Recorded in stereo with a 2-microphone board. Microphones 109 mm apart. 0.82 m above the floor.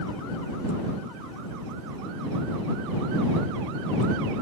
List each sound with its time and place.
Only background noise.